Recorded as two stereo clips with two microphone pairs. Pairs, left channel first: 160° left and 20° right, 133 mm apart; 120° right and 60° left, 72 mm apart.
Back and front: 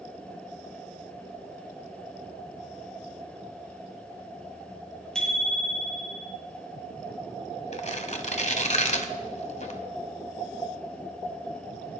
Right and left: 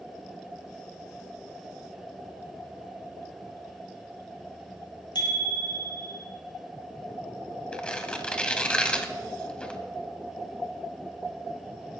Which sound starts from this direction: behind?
Tearing paper, at 7.7 s.